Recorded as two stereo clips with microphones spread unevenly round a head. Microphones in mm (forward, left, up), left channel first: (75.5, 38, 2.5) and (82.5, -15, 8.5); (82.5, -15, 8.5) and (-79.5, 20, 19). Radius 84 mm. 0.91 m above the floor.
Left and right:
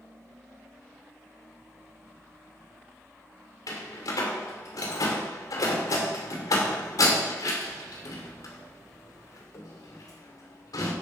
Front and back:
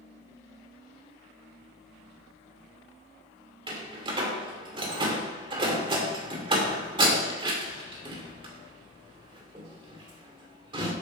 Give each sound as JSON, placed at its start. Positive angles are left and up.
{"t": 0.0, "sound": "a fan", "azimuth_deg": -55, "distance_m": 3.0}
{"t": 3.7, "sound": "a door slam", "azimuth_deg": 105, "distance_m": 2.5}